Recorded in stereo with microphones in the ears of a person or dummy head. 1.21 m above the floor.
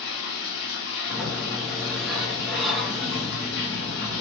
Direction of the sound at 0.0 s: 60° left (ahead or behind).